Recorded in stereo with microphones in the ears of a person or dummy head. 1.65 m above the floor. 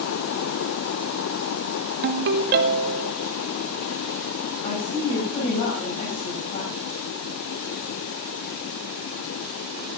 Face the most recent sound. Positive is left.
turn(degrees=40)  # may be behind; listen again after turning